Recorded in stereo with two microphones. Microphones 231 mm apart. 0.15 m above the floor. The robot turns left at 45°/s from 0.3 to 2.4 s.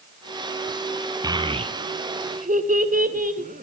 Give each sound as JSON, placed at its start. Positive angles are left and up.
{"t": 1.2, "sound": "a child speaking", "side_deg": -15, "distance_m": 0.8}